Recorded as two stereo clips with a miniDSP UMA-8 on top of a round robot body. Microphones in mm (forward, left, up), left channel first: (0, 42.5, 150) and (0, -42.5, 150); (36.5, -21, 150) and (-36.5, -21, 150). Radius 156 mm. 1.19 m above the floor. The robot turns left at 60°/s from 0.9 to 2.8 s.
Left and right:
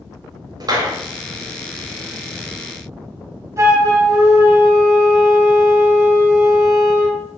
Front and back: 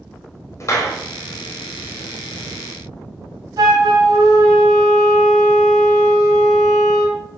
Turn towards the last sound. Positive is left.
turn(degrees=-145)